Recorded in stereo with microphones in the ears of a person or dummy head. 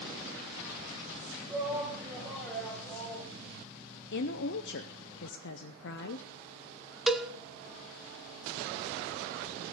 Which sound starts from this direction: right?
A shout, at 1.5 s.